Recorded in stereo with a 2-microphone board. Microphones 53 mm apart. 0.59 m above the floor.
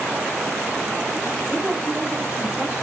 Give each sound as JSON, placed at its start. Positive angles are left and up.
{"t": 1.5, "sound": "a woman speaking", "side_deg": -45, "distance_m": 2.5}